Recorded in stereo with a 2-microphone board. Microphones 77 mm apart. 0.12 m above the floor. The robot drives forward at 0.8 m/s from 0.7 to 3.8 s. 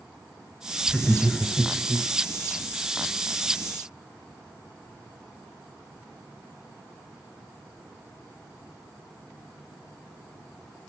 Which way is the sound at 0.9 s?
5° left (ahead or behind).